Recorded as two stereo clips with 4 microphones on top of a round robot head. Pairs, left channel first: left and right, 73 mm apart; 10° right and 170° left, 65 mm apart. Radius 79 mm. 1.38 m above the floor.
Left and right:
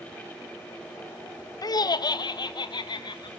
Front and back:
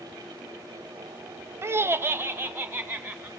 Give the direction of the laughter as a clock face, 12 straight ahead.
8 o'clock.